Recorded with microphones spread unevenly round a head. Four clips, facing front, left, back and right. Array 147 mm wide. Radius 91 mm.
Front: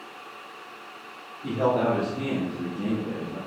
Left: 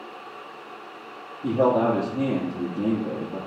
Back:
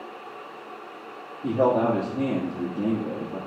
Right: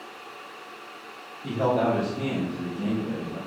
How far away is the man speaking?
About 2.5 m.